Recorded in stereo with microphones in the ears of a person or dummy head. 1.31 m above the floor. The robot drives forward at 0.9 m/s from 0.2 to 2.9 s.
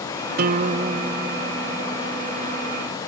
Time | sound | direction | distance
0.4 | a guitar | 55° right (ahead or behind) | ?